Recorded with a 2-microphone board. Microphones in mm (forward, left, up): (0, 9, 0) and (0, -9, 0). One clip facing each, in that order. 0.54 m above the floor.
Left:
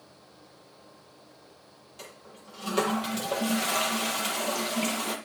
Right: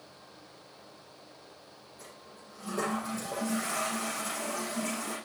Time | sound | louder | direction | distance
2.0 | a toilet flushing | left 5 dB | 90° left | 6 m